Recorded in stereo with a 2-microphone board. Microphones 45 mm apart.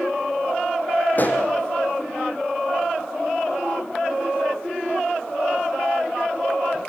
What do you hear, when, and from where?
1.1 s a pop: 40° left (ahead or behind), 3.5 m